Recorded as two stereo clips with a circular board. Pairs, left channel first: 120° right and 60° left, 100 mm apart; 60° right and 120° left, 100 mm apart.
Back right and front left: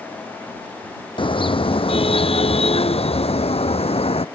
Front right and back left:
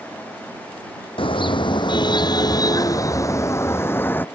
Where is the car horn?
90° right; by 4.2 s 130° right.